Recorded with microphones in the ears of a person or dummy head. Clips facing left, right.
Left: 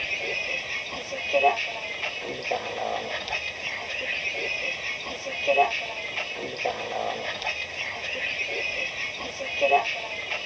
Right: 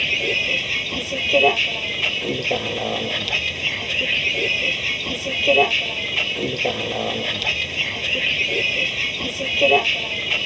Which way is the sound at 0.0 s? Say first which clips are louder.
Right 7 dB; 40° right (ahead or behind).